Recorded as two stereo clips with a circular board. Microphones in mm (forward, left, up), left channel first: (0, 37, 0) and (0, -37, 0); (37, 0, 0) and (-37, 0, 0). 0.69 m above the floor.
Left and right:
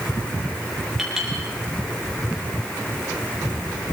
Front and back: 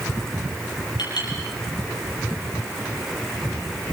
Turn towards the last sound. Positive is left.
turn(degrees=-5)